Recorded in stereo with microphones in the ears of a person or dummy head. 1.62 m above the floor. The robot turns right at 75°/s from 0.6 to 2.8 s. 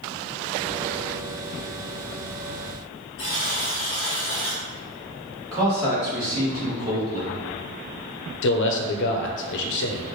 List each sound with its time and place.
3.2 s a buzzer: 20° left (ahead or behind), 0.9 m
5.5 s a man speaking: 20° right (ahead or behind), 1.9 m
8.4 s a man speaking: 65° left (ahead or behind), 0.6 m